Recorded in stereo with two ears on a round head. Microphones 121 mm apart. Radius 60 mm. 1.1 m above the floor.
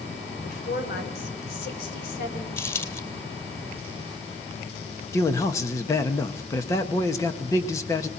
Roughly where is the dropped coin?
Centre.